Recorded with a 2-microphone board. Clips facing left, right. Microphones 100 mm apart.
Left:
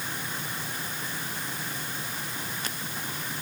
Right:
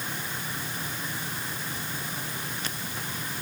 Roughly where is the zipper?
I don't hear a zipper.